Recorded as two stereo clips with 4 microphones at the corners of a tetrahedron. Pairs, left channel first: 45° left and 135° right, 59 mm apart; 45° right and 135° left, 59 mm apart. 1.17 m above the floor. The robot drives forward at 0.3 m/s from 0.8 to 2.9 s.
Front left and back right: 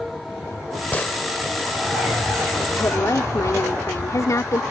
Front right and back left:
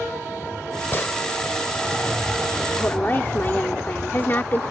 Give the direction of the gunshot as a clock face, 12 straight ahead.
12 o'clock.